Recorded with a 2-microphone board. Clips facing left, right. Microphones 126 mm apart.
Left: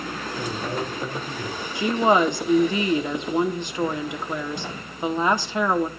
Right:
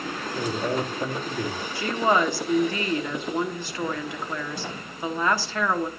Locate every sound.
0.3 s a man speaking: 60° right (ahead or behind), 2.5 m
1.8 s a woman speaking: 20° left (ahead or behind), 1.1 m